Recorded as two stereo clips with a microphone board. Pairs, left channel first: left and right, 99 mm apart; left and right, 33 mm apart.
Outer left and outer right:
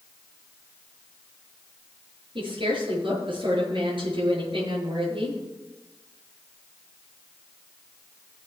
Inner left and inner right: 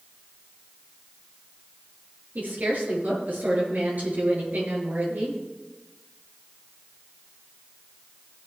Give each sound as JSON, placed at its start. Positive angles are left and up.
{"t": 2.4, "sound": "a woman speaking", "side_deg": -60, "distance_m": 8.0}